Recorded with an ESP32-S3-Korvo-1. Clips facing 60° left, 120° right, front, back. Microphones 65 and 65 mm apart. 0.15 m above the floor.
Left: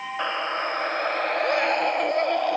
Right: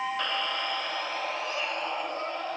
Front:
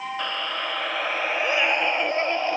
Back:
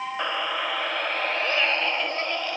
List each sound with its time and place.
0.2 s a scream: 115° left, 2 m; by 2.6 s 65° left, 3.5 m